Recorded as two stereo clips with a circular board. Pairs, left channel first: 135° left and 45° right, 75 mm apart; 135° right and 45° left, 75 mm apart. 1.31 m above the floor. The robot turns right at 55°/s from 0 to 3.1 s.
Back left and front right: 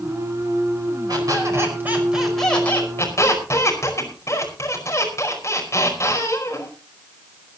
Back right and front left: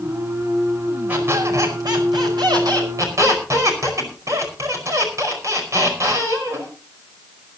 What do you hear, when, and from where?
1.1 s a squeak: 20° right, 5 m; by 6.7 s 90° left, 5 m